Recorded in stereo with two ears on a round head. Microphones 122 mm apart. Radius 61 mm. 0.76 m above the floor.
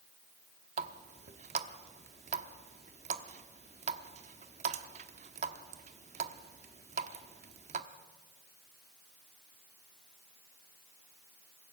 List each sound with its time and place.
0.8 s a running tap: 55° right (ahead or behind), 1.0 m